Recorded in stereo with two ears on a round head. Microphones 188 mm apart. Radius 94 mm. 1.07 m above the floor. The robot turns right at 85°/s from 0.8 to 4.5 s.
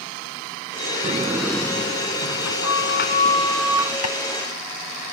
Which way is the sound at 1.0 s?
40° right.